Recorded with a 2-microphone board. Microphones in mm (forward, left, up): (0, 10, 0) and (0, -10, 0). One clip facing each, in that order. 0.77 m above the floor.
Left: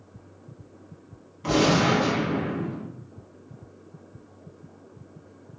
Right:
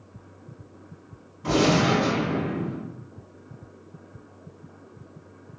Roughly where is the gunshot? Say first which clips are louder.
Even; left.